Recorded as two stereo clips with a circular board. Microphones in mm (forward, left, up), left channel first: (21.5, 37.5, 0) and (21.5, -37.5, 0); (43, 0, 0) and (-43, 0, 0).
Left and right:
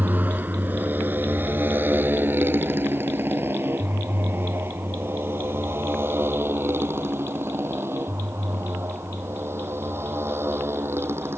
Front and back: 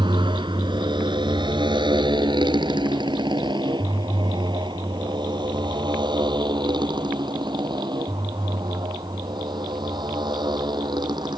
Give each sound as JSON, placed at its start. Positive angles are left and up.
{"t": 0.0, "sound": "a motorcycle", "azimuth_deg": -155}